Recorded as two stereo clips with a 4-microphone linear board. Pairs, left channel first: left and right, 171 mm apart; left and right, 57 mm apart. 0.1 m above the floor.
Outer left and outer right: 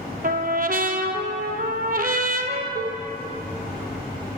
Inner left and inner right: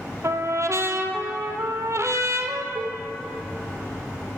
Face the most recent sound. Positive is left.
turn(degrees=60)  # may be behind; listen again after turning